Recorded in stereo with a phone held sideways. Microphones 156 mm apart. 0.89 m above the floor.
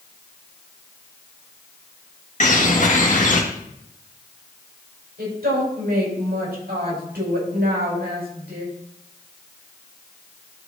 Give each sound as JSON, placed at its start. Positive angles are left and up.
{"t": 2.4, "sound": "a bird", "side_deg": 55, "distance_m": 1.6}
{"t": 5.2, "sound": "a woman speaking", "side_deg": -85, "distance_m": 5.0}